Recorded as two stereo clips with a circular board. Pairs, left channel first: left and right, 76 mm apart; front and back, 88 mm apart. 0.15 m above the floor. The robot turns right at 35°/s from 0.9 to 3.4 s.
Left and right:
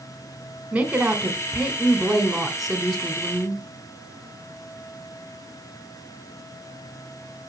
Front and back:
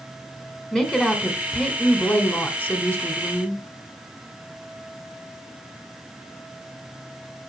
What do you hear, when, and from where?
0.7 s a woman speaking: 70° right, 1.2 m; by 3.6 s 20° left, 1.2 m